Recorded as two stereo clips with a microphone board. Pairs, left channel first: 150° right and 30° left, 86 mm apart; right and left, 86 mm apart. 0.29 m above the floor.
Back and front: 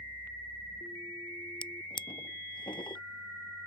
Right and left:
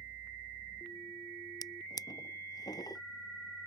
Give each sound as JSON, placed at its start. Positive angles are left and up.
{"t": 1.6, "sound": "a drawer", "azimuth_deg": -130}